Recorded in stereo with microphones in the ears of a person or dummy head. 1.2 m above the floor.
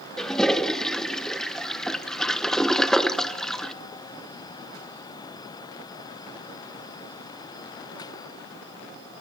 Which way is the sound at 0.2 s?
Centre (ahead or behind).